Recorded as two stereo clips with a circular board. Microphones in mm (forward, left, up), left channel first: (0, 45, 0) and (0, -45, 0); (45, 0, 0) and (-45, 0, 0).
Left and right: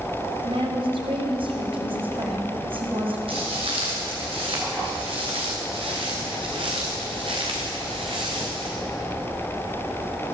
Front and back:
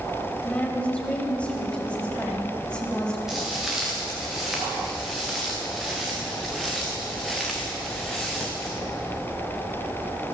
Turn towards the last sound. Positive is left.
turn(degrees=-85)